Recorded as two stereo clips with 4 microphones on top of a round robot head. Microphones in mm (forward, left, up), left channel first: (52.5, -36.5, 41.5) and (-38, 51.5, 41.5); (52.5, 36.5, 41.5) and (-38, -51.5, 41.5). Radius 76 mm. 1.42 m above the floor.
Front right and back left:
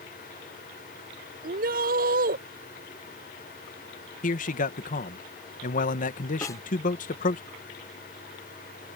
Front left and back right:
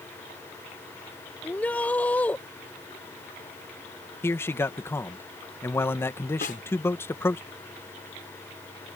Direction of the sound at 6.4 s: 20° left.